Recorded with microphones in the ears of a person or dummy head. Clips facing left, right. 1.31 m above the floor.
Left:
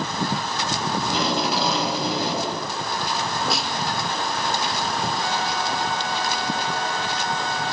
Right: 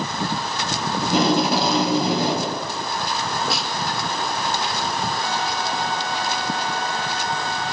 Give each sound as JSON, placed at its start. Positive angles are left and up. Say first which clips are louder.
{"t": 1.0, "sound": "tape being pulled", "louder": "right 8 dB", "side_deg": -50, "distance_m": 6.5}
{"t": 3.5, "sound": "a snare drum", "louder": "even", "side_deg": 10, "distance_m": 2.0}